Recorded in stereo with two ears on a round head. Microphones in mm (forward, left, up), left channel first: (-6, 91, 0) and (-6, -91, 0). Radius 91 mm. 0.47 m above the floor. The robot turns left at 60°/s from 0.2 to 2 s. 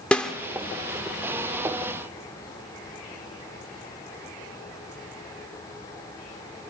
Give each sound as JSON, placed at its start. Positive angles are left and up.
{"t": 0.1, "sound": "a snare drum", "side_deg": 5, "distance_m": 1.1}